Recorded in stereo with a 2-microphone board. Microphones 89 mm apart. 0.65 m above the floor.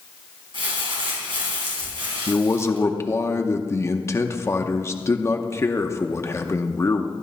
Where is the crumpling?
70° right (ahead or behind), 4 m.